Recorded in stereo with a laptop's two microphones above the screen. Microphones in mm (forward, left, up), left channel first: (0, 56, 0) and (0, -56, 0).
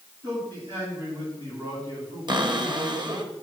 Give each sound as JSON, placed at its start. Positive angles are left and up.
{"t": 0.2, "sound": "a man speaking", "side_deg": -40, "distance_m": 5.5}
{"t": 2.3, "sound": "a cupboard door", "side_deg": -40, "distance_m": 1.2}